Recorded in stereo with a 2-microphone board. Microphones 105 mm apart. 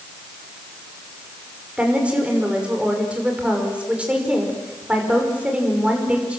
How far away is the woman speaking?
About 5.5 m.